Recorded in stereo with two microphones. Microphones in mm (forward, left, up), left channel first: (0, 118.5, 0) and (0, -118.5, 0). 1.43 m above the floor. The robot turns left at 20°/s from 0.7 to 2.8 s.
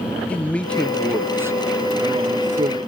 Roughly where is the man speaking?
Ahead.